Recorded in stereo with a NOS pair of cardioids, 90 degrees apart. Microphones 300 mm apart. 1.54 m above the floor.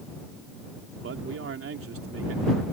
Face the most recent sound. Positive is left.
turn(degrees=-45)